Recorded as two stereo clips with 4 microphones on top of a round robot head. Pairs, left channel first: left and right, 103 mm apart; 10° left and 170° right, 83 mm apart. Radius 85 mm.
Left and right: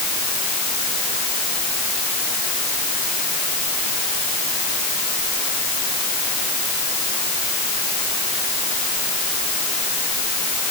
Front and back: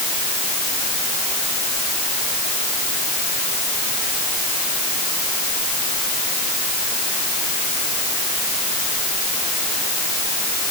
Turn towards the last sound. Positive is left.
No sound to turn to.